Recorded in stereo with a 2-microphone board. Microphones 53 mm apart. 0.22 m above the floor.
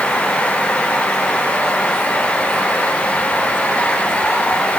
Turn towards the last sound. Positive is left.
No sound to turn to.